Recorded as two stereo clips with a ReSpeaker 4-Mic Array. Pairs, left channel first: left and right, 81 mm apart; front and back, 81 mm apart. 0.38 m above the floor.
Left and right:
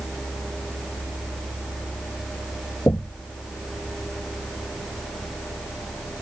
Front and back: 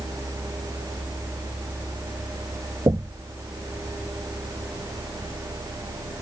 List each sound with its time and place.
2.9 s knocking: 150° left